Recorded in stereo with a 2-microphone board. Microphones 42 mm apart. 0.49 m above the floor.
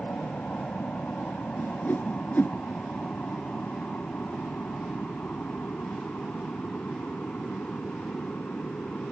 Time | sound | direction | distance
0.0 | an aircraft | 35° left (ahead or behind) | ?
1.6 | a whoosh | 50° left (ahead or behind) | ?